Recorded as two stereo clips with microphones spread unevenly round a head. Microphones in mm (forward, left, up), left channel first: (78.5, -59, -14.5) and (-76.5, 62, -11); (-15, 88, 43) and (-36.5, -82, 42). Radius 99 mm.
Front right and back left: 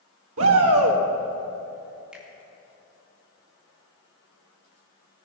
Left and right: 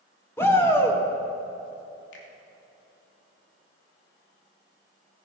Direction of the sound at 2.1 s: 55° left.